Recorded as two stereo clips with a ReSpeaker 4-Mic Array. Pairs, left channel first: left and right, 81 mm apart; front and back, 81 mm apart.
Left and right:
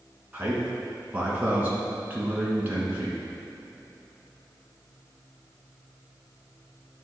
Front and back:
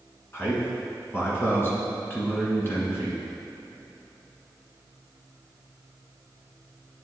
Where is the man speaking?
40° right, 1.3 m.